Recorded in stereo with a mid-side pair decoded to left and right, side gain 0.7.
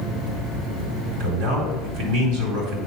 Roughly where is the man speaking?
Right.